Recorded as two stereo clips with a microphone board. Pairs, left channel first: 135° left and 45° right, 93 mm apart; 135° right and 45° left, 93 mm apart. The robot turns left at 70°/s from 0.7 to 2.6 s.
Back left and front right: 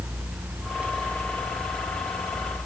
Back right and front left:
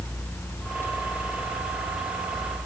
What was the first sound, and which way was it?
Only background noise.